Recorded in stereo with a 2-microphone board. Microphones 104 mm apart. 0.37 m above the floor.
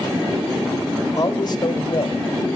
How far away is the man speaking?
About 1.8 m.